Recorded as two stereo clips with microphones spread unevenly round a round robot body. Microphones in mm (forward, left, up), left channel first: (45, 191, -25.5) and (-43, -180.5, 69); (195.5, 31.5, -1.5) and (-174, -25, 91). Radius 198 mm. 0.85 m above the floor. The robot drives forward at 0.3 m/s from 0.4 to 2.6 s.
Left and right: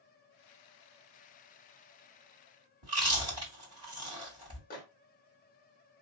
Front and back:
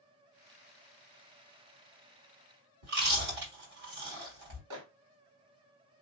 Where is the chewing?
160° right, 3 m.